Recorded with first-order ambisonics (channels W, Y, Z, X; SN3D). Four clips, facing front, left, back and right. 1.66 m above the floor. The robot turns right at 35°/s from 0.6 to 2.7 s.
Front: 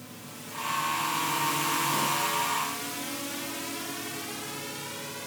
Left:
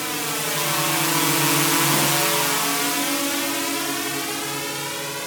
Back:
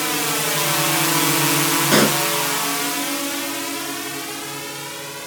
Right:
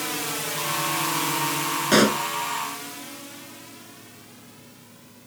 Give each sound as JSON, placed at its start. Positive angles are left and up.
{"t": 0.0, "sound": "a drone", "azimuth_deg": 170}
{"t": 1.9, "sound": "a pop", "azimuth_deg": -145}